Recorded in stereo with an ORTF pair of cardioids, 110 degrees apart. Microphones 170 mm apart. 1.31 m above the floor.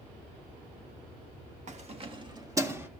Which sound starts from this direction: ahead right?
Keys jangling, at 1.7 s.